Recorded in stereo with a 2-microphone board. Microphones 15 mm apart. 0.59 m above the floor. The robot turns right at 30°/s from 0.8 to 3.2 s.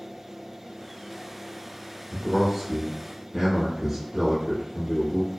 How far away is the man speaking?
About 1.1 m.